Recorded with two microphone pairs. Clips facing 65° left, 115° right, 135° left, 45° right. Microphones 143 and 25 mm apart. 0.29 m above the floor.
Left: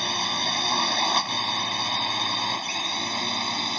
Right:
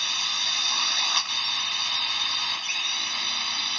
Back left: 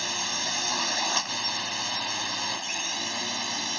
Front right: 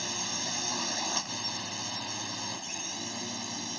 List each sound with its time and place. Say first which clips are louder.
0.0 s a drone: left 9 dB, back left 5 dB; 80° left; by 3.8 s 100° left